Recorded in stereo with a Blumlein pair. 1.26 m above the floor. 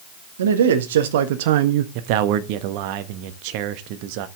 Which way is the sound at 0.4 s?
65° right.